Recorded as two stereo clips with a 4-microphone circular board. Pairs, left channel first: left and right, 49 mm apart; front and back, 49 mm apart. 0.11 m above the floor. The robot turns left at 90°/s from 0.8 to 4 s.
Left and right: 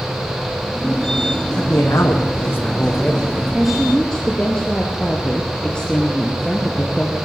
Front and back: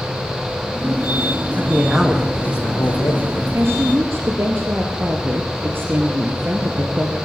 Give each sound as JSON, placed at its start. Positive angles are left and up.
{"t": 1.6, "sound": "a man speaking", "azimuth_deg": 130, "distance_m": 6.0}
{"t": 3.5, "sound": "a woman speaking", "azimuth_deg": -160, "distance_m": 2.5}